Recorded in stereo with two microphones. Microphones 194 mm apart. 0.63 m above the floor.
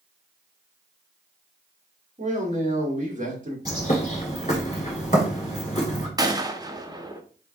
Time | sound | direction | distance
2.2 | a man speaking | 40° right (ahead or behind) | 1.6 m
3.6 | a bird | 35° left (ahead or behind) | 1.7 m
6.2 | a gunshot | 20° right (ahead or behind) | 0.6 m